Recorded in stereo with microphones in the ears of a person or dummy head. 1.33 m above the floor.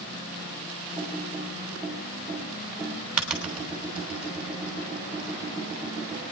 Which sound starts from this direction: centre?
Typing on a keyboard, at 1.0 s.